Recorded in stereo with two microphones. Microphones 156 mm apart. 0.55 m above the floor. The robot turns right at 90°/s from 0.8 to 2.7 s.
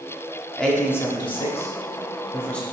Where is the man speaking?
5° left (ahead or behind), 0.8 m.